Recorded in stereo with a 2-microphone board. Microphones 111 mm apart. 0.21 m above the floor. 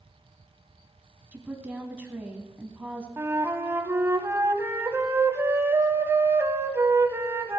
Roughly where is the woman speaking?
Centre.